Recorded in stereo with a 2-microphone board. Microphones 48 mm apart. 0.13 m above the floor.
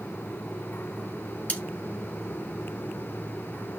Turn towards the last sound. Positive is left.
turn(degrees=25)  # may be behind; listen again after turning